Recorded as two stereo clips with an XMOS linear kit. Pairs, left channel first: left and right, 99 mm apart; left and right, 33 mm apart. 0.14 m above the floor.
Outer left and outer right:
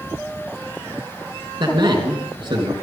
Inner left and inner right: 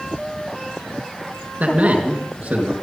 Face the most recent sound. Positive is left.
turn(degrees=-50)  # may be behind; listen again after turning